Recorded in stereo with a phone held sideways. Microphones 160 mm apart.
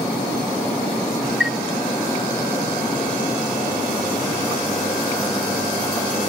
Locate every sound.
1.4 s a chime: centre (ahead or behind), 0.7 m